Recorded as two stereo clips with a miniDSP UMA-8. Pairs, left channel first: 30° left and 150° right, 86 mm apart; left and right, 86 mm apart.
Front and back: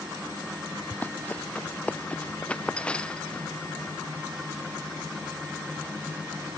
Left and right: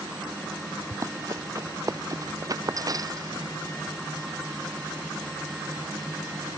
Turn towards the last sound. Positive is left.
turn(degrees=-50)